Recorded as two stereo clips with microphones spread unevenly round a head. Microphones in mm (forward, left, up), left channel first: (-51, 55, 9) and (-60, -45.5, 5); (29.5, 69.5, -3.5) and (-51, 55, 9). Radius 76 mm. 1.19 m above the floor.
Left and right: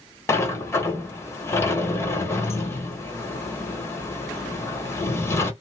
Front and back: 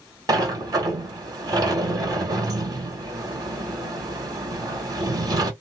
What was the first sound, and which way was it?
A sliding door, 150° left.